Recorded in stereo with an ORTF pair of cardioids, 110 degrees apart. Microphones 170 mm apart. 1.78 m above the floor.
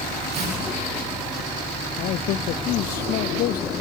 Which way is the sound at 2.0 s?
65° left.